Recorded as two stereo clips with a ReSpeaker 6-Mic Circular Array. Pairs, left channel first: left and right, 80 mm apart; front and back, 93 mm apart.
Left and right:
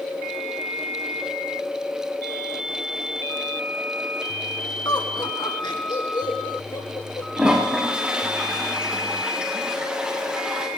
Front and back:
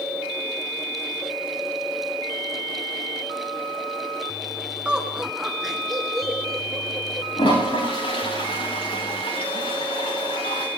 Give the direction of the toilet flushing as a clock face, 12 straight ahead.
12 o'clock.